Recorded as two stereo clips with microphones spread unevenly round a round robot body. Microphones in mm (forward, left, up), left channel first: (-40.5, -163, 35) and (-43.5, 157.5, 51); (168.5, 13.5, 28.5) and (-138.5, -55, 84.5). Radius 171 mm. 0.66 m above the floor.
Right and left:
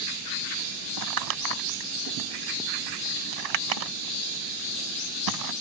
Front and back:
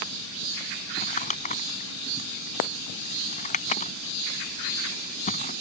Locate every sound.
1.0 s crumpling: 85° left